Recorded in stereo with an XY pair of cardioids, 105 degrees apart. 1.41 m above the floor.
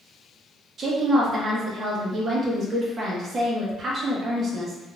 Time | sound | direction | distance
0.8 | a woman speaking | 45° right | 1.3 m